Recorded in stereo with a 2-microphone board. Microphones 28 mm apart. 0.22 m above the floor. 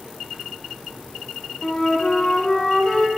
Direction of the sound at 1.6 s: 30° left (ahead or behind).